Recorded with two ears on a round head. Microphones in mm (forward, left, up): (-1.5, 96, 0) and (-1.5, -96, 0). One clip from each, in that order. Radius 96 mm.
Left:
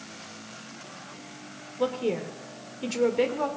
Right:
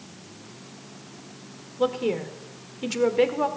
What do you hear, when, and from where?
1.8 s a woman speaking: 10° right (ahead or behind), 1.8 m